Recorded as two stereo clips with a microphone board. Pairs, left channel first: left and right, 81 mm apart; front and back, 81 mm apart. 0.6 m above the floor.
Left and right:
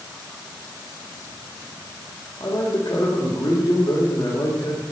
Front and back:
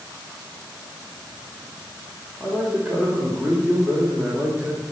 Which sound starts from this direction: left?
A man speaking, at 2.4 s.